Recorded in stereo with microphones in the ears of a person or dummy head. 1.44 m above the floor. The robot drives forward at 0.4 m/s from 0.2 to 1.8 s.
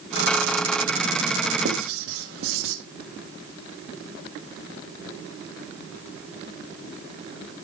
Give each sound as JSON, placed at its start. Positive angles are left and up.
{"t": 1.6, "sound": "writing", "side_deg": -75, "distance_m": 1.4}